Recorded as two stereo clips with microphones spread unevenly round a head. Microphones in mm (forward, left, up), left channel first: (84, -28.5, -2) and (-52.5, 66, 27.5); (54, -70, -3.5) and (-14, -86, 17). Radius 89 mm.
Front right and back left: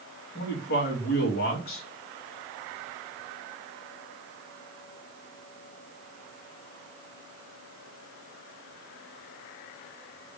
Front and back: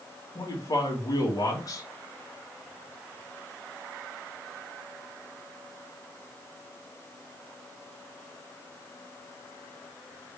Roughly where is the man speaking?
Ahead.